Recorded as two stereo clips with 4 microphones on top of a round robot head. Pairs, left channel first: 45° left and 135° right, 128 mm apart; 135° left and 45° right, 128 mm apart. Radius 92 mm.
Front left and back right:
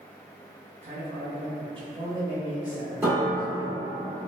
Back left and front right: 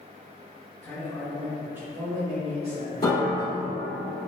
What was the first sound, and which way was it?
A man speaking, 150° right.